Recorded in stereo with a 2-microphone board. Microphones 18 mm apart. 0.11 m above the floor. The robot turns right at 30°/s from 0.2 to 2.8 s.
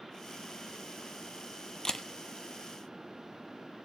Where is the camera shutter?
40° left (ahead or behind), 0.7 m; by 2.0 s 45° left (ahead or behind), 0.7 m.